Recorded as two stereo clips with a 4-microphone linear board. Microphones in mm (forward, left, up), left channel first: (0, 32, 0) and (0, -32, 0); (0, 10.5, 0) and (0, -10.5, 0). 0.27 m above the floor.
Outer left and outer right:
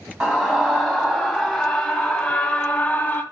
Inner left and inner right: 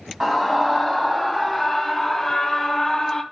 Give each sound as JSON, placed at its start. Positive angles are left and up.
{"t": 0.2, "sound": "a scream", "side_deg": -15, "distance_m": 2.5}